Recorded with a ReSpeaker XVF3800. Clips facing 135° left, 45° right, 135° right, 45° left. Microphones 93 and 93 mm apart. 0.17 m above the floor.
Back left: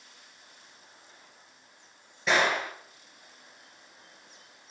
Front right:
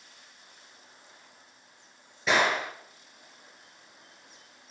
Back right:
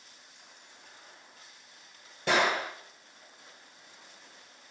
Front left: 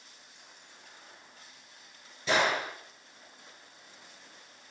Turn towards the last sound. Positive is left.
turn(degrees=-135)